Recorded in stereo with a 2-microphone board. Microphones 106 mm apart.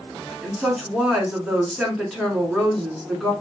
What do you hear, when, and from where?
0.4 s a woman speaking: 5° right (ahead or behind), 1.8 m